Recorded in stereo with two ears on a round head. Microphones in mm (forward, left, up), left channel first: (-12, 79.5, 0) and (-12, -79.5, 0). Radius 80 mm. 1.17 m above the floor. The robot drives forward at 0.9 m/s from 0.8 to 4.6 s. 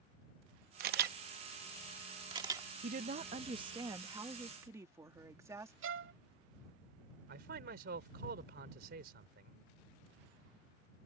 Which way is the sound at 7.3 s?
65° right (ahead or behind).